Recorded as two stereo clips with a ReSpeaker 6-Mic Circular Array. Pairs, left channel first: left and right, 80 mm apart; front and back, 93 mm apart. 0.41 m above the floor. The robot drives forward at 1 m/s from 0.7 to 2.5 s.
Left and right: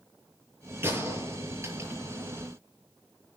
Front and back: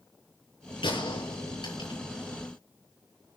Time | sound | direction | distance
0.8 | a gunshot | 30° right | 8 m